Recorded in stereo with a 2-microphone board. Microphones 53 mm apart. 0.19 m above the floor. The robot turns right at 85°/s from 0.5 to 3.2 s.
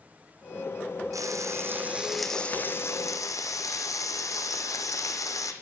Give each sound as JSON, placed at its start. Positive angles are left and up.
{"t": 1.1, "sound": "frying", "azimuth_deg": -90, "distance_m": 2.0}